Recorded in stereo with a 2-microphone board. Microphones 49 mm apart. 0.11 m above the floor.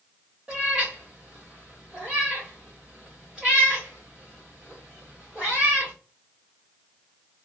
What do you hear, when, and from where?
0.5 s a cat meowing: 10° right (ahead or behind), 2 m